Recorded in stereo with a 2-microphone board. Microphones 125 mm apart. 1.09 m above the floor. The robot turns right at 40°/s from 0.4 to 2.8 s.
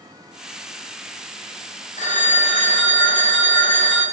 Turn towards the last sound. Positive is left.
turn(degrees=115)